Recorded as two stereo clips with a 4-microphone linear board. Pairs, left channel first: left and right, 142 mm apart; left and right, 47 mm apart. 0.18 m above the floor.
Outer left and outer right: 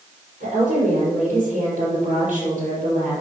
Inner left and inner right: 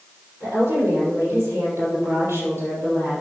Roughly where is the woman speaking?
Right.